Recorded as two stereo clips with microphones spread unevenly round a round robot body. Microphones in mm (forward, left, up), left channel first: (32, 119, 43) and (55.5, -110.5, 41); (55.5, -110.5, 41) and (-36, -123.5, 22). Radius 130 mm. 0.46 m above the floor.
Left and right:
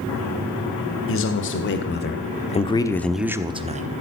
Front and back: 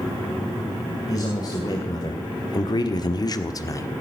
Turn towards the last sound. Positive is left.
turn(degrees=-50)